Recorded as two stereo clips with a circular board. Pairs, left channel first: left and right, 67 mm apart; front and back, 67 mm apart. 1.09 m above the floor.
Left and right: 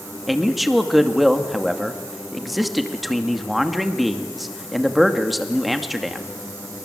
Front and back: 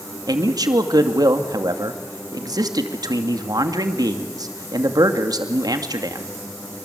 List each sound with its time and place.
0.3 s a man speaking: straight behind, 2.5 m